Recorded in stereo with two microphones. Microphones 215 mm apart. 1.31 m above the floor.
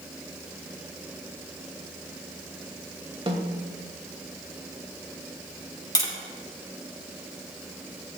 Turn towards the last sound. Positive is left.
turn(degrees=20)  # may be behind; listen again after turning